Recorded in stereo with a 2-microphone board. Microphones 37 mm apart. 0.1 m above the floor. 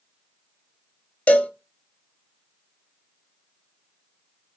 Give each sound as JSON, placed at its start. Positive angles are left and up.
{"t": 1.3, "sound": "a cowbell", "side_deg": 35, "distance_m": 0.8}